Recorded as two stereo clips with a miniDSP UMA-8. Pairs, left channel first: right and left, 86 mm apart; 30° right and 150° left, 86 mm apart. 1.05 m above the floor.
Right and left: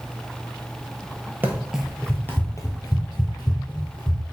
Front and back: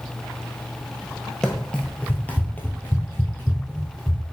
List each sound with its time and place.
1.4 s running footsteps: 50° left, 1.1 m; by 4.2 s 95° right, 2.5 m